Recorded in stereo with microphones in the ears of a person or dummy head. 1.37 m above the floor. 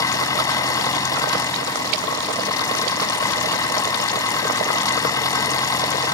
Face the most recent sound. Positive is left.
turn(degrees=15)  # may be behind; listen again after turning